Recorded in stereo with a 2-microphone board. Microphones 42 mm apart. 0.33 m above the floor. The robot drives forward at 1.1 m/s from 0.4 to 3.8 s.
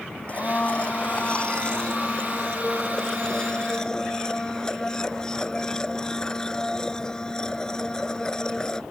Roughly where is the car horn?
I don't hear a car horn.